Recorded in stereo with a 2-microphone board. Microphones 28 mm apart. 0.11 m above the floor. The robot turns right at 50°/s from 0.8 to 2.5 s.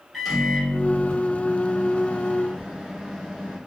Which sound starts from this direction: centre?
A microwave, at 0.1 s.